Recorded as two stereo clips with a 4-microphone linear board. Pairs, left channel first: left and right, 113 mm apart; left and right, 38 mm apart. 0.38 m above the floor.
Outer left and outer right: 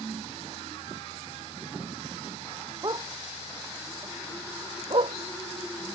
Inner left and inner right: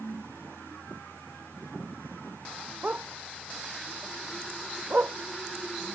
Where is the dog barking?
40° right (ahead or behind); by 5.2 s 55° right (ahead or behind).